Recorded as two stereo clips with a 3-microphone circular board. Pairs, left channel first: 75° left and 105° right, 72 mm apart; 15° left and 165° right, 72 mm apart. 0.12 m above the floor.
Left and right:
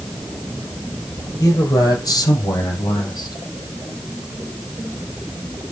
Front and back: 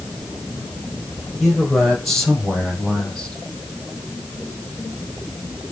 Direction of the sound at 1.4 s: 100° left.